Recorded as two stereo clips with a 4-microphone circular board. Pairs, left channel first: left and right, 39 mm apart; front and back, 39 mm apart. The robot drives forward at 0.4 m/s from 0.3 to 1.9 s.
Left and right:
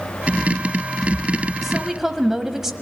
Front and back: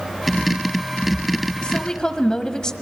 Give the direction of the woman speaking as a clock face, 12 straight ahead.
1 o'clock.